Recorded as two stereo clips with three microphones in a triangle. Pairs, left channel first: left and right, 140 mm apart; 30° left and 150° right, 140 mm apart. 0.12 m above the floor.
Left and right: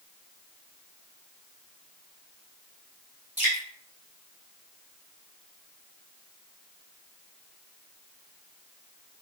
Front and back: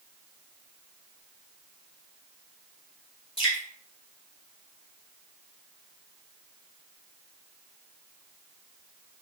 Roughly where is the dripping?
Ahead.